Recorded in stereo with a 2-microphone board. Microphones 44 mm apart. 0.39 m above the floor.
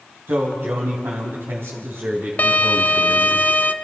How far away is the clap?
No clap in this recording.